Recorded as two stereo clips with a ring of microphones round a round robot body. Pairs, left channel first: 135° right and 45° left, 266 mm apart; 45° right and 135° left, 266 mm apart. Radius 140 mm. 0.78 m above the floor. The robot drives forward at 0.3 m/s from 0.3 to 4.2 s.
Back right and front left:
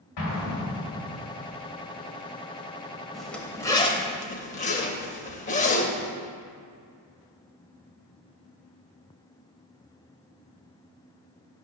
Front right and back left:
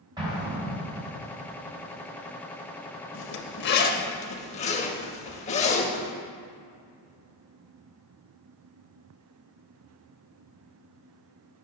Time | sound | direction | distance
0.2 | an explosion | 150° right | 3 m
3.1 | a zipper | 45° right | 0.6 m